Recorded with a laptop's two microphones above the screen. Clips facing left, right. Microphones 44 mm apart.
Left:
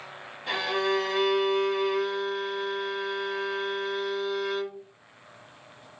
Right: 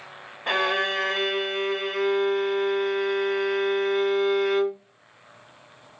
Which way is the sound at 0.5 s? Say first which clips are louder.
Right 3 dB; 55° right (ahead or behind).